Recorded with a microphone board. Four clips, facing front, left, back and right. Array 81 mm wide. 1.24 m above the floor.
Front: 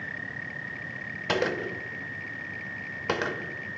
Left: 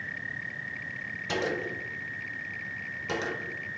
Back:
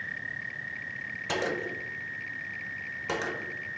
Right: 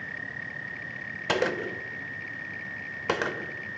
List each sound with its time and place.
1.3 s a gunshot: 60° right, 0.5 m